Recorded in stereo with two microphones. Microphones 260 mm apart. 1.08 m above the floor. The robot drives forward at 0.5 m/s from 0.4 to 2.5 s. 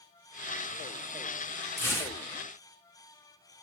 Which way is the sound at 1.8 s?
10° left (ahead or behind).